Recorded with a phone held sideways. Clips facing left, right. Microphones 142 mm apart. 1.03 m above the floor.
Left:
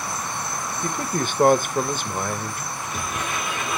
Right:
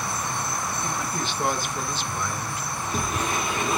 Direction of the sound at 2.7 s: 40° right (ahead or behind).